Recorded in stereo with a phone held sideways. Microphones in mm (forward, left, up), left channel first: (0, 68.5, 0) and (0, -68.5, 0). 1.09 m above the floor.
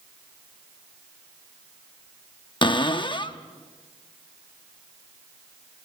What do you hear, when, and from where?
2.6 s a cupboard door: 35° left (ahead or behind), 0.7 m